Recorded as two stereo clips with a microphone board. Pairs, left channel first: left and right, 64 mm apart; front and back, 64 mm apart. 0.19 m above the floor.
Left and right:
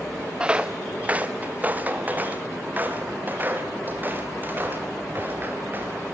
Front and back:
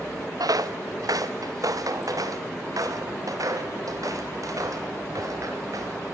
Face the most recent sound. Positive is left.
turn(degrees=-150)